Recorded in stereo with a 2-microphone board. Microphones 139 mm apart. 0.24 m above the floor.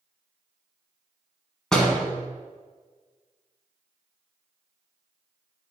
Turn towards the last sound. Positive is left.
turn(degrees=5)  # may be behind; listen again after turning